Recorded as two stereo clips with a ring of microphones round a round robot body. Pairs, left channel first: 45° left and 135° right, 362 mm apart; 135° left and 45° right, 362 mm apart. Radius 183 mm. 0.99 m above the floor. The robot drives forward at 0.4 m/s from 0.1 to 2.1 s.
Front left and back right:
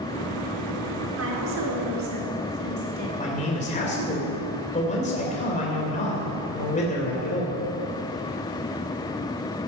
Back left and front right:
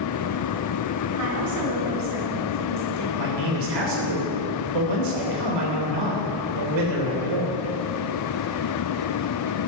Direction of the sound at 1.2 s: 85° right.